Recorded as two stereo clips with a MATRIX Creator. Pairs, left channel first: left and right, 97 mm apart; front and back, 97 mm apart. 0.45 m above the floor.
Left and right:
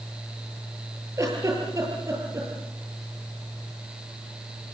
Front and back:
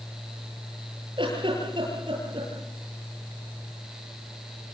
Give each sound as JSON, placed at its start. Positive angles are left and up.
{"t": 1.2, "sound": "a giggle", "azimuth_deg": -145, "distance_m": 9.0}